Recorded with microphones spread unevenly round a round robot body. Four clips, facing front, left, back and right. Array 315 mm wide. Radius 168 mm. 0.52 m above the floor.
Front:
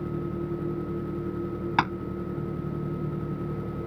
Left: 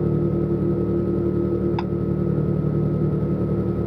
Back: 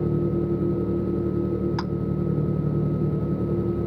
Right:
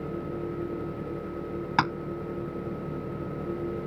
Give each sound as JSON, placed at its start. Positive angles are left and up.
{"t": 0.0, "sound": "an engine running", "azimuth_deg": 110}
{"t": 1.8, "sound": "tapping", "azimuth_deg": -45}